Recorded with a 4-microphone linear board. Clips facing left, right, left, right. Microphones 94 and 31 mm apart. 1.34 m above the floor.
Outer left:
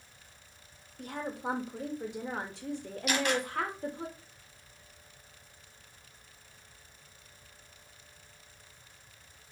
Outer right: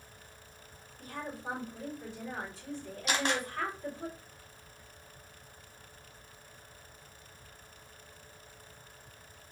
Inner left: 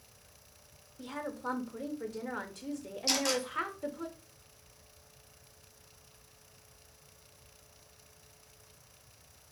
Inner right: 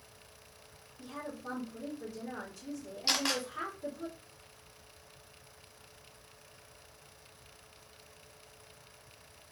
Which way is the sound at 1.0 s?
70° left (ahead or behind).